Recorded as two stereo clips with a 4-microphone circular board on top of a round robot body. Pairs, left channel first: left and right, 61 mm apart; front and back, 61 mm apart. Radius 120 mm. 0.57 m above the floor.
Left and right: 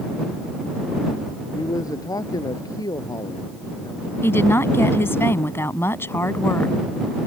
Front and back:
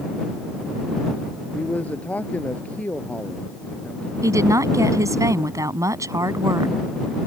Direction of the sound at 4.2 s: 145° left.